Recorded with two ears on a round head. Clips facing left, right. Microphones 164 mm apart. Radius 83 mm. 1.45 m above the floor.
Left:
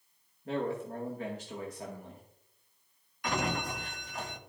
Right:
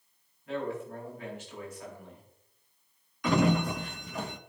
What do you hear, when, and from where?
0.5 s a man speaking: 35° left (ahead or behind), 1.9 m
3.2 s a sliding door: 65° right (ahead or behind), 0.8 m